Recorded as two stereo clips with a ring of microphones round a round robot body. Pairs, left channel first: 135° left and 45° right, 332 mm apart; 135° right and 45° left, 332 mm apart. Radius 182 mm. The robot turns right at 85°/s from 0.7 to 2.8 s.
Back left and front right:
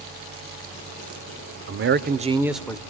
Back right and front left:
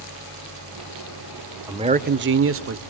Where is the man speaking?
30° right, 1.0 m; by 2.8 s 65° left, 1.0 m.